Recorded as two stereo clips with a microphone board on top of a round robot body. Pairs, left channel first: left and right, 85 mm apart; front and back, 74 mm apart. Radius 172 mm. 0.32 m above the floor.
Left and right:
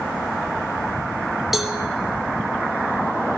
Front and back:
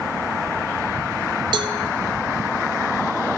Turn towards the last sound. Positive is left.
turn(degrees=180)